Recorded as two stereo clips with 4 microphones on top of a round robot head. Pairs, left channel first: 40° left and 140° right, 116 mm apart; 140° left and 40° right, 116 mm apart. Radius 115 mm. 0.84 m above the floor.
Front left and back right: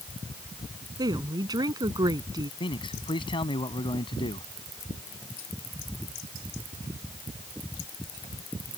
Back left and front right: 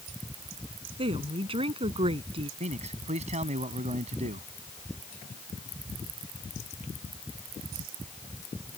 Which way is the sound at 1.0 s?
80° right.